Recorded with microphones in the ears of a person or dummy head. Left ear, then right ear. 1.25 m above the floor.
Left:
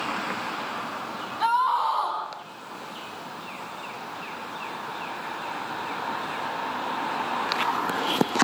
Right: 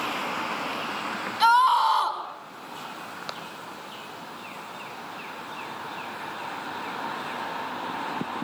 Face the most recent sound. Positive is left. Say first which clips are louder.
# right 4 dB
turn(degrees=-75)  # may be behind; listen again after turning